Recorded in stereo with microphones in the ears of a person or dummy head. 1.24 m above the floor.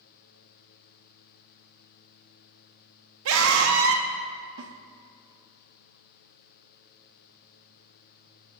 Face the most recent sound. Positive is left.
turn(degrees=-60)  # may be behind; listen again after turning